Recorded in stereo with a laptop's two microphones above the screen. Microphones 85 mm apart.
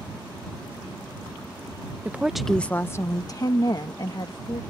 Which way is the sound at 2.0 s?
20° right (ahead or behind).